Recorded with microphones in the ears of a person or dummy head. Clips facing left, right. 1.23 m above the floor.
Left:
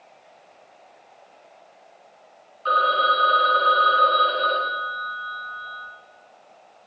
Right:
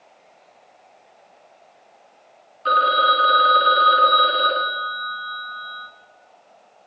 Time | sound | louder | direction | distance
2.6 | a phone ringing | right 2 dB | 25° right (ahead or behind) | 0.9 m